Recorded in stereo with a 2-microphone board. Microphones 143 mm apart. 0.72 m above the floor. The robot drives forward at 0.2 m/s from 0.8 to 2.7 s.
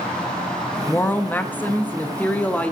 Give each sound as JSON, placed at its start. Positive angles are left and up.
{"t": 0.9, "sound": "a woman speaking", "side_deg": 15, "distance_m": 0.5}